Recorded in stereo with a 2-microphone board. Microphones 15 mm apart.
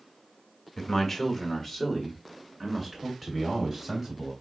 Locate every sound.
0.8 s a man speaking: 30° left (ahead or behind), 1.5 m; by 4.3 s 15° right (ahead or behind), 3 m